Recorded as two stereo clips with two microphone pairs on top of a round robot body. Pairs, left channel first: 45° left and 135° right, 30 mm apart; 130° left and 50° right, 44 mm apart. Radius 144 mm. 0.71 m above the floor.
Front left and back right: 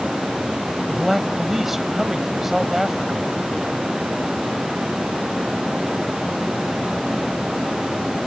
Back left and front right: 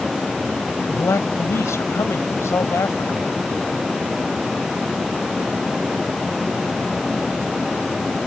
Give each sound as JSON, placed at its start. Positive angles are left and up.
{"t": 0.9, "sound": "a man speaking", "azimuth_deg": 140}